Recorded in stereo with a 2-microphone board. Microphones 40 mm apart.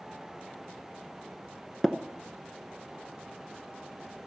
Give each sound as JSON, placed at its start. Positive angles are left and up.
{"t": 1.8, "sound": "tapping", "side_deg": 10, "distance_m": 0.7}